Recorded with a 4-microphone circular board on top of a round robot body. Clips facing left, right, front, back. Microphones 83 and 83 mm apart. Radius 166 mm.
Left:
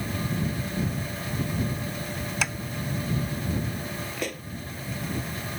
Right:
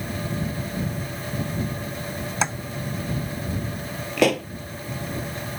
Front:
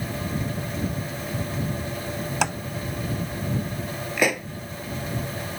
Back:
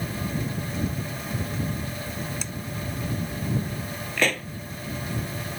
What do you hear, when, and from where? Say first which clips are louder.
2.4 s tapping: right 6 dB, front 13 dB; 25° right
4.2 s a pop: right 17 dB, front 2 dB; 80° right